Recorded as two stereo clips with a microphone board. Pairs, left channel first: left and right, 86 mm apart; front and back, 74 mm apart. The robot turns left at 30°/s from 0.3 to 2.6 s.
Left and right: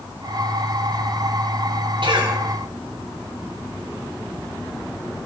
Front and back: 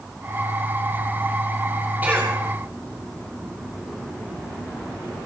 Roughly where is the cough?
Right.